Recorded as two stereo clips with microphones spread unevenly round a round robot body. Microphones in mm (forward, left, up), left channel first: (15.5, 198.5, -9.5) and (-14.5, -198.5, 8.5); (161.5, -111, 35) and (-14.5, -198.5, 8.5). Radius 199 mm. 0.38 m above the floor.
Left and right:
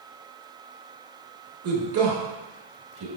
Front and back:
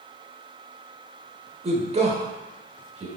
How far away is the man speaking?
About 1.1 m.